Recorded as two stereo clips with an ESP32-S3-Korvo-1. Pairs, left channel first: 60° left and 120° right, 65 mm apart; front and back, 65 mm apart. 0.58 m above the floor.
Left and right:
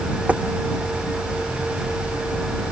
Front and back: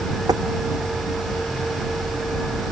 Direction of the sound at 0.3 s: 170° left.